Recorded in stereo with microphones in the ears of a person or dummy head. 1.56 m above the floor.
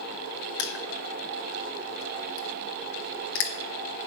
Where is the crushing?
55° left (ahead or behind), 1.1 m.